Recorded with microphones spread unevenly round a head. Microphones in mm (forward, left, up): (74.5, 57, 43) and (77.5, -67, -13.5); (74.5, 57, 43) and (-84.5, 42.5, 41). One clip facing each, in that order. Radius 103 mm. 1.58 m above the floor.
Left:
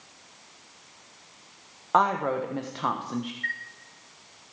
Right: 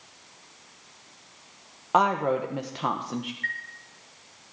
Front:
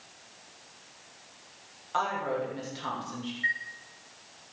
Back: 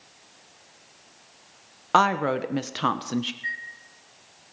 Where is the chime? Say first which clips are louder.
Right 1 dB, front 2 dB; 35° left, 8 m.